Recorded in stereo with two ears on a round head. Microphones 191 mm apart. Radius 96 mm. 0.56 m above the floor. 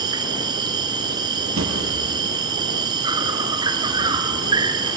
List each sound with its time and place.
0.0 s an insect: 20° right (ahead or behind), 1.6 m
1.6 s a drawer: 65° right (ahead or behind), 6.5 m